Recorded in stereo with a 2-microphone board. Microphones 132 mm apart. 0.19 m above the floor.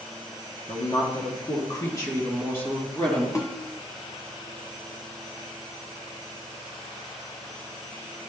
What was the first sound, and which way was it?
A woman speaking, 45° left (ahead or behind).